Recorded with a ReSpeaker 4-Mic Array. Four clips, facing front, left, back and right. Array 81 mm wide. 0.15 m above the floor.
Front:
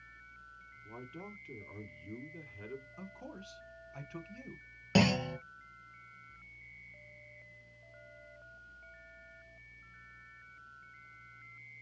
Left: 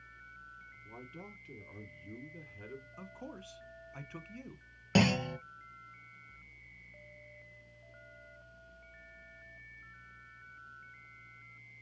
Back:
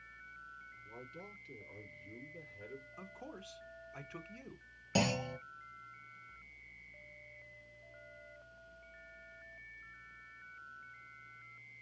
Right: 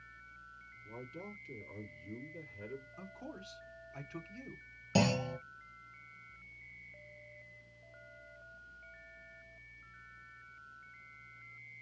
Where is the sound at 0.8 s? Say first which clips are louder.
Right 3 dB, front 5 dB; 25° left, 1.7 m.